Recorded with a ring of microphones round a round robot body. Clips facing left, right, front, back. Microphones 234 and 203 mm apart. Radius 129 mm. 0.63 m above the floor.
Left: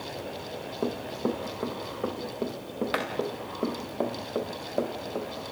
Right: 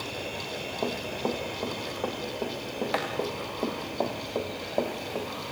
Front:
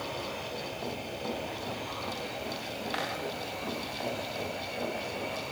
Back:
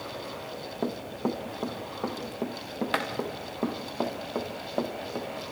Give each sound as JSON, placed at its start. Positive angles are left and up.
{"t": 0.8, "sound": "running footsteps", "azimuth_deg": 155, "distance_m": 4.0}